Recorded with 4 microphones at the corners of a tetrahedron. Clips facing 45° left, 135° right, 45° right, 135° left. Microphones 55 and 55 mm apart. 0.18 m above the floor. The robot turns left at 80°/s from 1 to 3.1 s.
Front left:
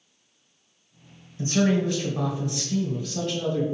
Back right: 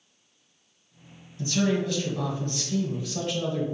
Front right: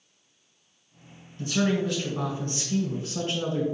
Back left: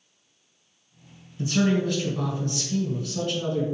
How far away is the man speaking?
About 1.5 m.